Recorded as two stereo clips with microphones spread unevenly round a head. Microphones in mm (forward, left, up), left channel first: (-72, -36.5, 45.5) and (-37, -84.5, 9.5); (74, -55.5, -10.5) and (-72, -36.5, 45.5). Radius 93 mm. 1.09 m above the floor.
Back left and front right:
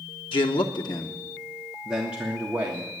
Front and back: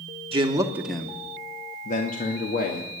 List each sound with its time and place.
0.3 s a man speaking: 105° left, 1.0 m; by 2.9 s 10° right, 1.7 m